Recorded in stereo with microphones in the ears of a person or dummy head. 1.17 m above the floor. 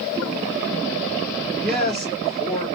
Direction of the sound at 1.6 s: Centre (ahead or behind).